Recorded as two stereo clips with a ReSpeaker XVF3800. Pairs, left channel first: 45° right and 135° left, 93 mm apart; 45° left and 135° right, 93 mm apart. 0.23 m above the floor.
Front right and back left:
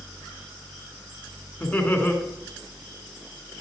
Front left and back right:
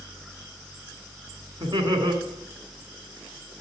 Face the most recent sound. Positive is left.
turn(degrees=-110)